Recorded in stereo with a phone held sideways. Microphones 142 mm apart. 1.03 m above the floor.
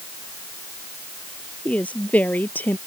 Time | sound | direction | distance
1.6 | a woman speaking | 10° left (ahead or behind) | ?